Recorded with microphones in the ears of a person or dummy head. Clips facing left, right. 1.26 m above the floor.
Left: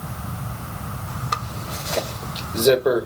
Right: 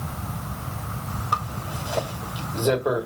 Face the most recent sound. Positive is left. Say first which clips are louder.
# even
turn(degrees=30)  # may be behind; listen again after turning